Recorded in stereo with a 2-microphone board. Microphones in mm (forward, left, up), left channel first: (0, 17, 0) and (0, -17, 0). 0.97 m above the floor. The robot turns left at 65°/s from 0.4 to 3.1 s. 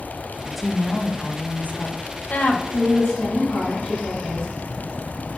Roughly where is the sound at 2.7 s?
Left.